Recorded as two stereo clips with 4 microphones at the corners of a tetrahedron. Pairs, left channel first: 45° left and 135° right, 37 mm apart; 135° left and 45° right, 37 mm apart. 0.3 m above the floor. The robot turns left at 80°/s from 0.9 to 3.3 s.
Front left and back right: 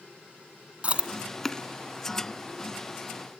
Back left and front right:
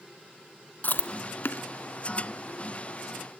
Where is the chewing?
170° left, 1.0 m; by 1.6 s 110° left, 1.0 m.